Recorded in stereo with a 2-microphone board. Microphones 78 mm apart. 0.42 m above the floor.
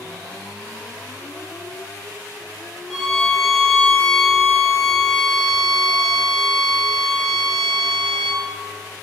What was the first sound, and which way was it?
A violin, centre (ahead or behind).